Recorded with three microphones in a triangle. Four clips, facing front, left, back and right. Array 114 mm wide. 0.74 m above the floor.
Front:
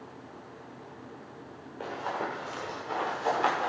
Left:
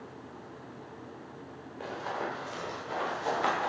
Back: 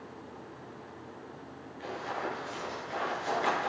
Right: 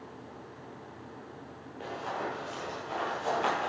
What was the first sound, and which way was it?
Running footsteps, 5° right.